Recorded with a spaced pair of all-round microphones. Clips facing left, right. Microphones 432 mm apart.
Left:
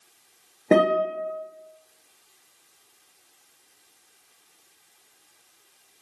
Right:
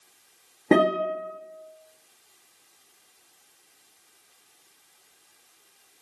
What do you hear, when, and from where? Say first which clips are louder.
0.7 s a guitar: even; 15° right (ahead or behind), 1.4 m